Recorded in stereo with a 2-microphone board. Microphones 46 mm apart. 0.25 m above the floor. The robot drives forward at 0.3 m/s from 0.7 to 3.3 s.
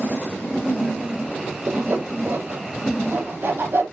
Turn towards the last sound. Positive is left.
turn(degrees=-45)  # may be behind; listen again after turning